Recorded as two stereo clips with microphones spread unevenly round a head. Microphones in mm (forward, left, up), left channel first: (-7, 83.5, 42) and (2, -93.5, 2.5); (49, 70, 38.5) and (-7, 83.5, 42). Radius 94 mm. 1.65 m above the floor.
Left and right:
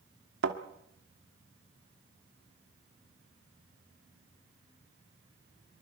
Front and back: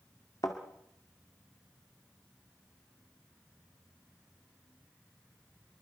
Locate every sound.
0.4 s a thud: 70° right, 1.7 m